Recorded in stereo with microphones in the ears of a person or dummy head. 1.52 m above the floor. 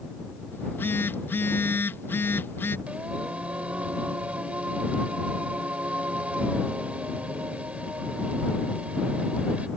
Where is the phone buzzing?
10° left (ahead or behind).